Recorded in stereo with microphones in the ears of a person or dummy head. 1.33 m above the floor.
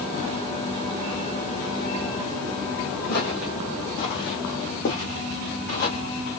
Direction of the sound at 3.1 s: 50° left (ahead or behind).